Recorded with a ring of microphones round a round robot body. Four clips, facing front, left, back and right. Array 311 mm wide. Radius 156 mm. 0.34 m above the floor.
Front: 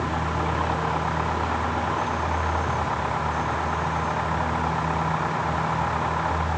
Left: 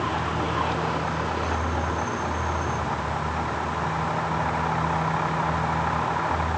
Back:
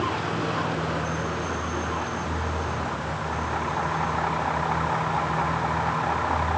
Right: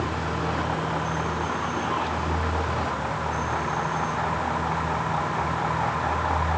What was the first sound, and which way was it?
Only background noise.